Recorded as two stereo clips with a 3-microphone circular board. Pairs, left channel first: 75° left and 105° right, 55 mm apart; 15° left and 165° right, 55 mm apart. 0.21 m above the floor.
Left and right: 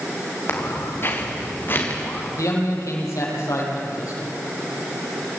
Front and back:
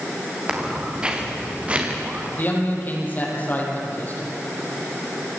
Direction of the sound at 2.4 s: 65° left.